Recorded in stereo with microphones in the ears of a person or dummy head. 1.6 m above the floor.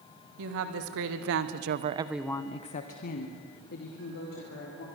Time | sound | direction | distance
0.4 | a woman speaking | 80° right | 2.5 m